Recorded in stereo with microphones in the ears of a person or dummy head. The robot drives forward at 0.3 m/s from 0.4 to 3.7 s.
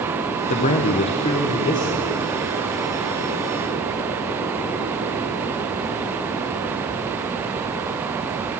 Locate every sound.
0.5 s a man speaking: 40° left (ahead or behind), 0.7 m; by 2.1 s 25° left (ahead or behind), 1.2 m